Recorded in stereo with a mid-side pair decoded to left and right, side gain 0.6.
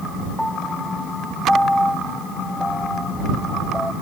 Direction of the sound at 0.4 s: Straight ahead.